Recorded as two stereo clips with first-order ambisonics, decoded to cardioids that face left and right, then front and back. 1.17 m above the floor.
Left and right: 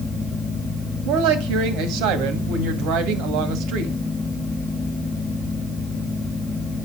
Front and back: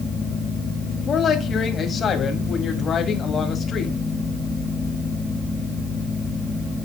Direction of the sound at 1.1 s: 65° right.